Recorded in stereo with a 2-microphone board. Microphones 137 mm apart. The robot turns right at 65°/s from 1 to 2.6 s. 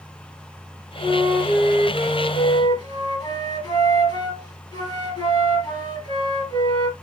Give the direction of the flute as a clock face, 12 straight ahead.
11 o'clock.